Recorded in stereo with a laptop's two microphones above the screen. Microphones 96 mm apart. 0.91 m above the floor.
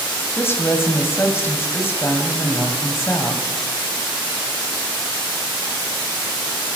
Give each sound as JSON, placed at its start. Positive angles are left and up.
{"t": 0.3, "sound": "a woman speaking", "side_deg": 25, "distance_m": 5.0}